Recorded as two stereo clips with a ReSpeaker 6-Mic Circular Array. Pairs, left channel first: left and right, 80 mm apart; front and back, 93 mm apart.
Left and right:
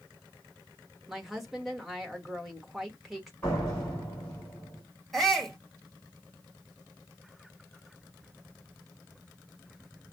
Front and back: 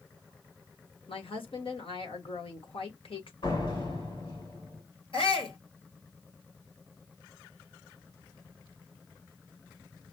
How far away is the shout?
About 1.6 m.